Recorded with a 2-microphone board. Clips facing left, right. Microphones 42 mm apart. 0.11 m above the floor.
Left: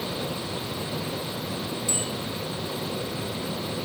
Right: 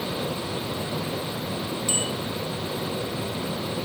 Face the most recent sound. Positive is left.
turn(degrees=-70)  # may be behind; listen again after turning